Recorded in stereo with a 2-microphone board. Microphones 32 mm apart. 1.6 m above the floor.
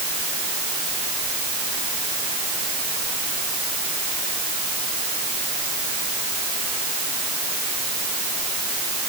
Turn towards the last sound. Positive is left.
No sound to turn to.